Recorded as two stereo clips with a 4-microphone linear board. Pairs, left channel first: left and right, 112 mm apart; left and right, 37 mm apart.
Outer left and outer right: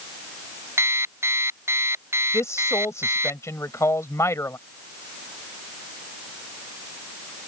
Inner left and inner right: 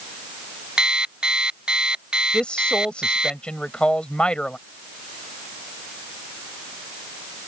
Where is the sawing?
No sawing in this recording.